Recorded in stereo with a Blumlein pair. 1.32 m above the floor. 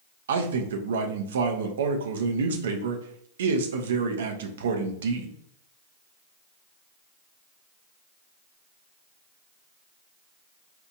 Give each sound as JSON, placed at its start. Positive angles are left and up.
{"t": 0.3, "sound": "a man speaking", "azimuth_deg": -60, "distance_m": 0.6}